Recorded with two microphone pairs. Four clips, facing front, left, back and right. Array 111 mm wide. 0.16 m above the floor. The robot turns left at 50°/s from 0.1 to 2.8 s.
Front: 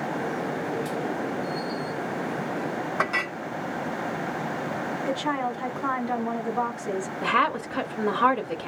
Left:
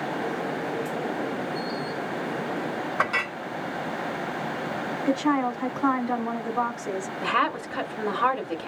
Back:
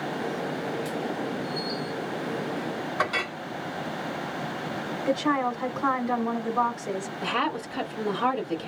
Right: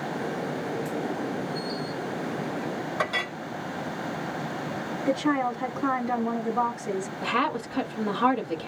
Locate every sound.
3.0 s a clink: 75° left, 1.2 m
5.1 s a woman speaking: 115° left, 1.3 m
7.2 s a woman speaking: 30° left, 1.5 m